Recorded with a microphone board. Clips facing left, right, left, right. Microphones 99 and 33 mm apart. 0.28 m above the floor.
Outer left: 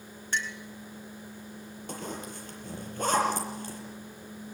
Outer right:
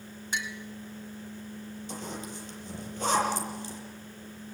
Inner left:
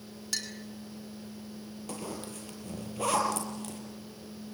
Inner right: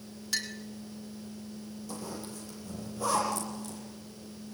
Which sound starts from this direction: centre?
A clink, at 0.3 s.